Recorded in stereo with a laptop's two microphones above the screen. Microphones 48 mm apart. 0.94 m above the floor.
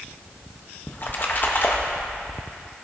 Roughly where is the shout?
No shout in this recording.